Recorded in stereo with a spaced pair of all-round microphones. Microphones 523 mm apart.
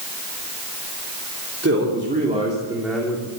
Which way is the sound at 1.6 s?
25° right (ahead or behind).